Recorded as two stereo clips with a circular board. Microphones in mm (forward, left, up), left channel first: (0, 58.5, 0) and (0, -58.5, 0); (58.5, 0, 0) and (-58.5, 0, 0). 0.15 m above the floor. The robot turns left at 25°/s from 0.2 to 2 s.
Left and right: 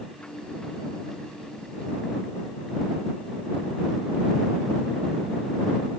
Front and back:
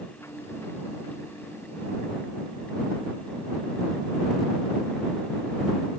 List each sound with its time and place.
Only background noise.